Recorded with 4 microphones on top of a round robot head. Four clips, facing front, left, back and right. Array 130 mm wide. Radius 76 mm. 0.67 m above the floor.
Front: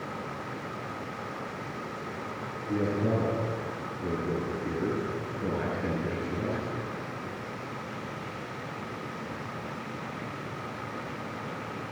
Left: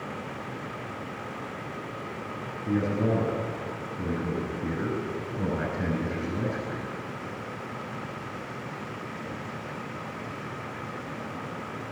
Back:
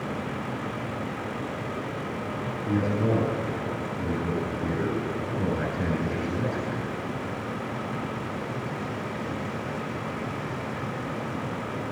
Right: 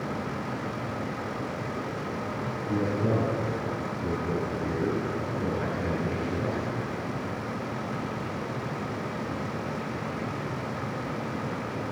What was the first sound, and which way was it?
A man speaking, 140° left.